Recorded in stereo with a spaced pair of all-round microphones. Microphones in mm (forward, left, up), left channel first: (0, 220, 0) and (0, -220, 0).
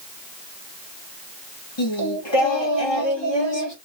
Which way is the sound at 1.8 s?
75° left (ahead or behind).